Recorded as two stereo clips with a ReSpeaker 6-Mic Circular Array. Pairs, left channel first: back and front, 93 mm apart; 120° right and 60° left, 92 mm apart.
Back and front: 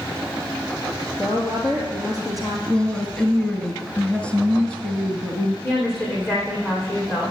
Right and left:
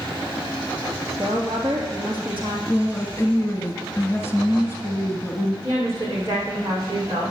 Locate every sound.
1.2 s a woman speaking: 130° left, 3 m
2.7 s a woman speaking: 120° right, 1.3 m
5.6 s a woman speaking: 120° left, 6 m